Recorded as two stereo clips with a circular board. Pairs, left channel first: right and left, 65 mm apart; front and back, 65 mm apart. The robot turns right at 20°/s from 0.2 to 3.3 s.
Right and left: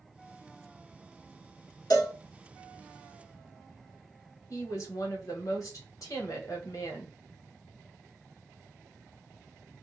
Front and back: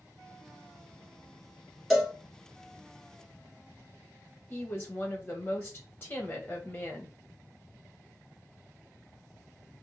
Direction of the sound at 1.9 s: 90° right.